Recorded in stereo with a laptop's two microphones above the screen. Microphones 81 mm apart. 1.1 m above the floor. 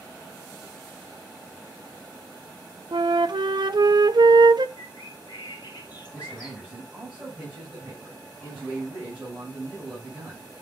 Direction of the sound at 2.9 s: 65° right (ahead or behind).